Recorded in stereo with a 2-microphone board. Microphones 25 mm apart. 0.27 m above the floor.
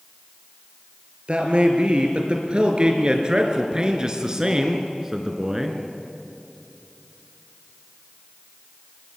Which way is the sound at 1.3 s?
45° right (ahead or behind).